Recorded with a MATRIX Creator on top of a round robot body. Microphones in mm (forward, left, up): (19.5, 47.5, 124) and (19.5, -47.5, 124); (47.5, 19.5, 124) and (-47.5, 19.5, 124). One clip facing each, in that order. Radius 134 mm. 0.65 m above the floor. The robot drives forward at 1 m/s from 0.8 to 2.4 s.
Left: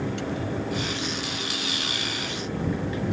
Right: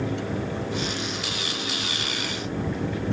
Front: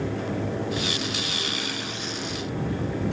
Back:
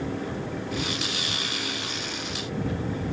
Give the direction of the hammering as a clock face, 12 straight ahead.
No hammering in this recording.